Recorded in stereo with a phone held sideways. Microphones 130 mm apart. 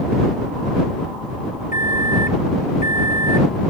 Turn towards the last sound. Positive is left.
turn(degrees=75)  # may be behind; listen again after turning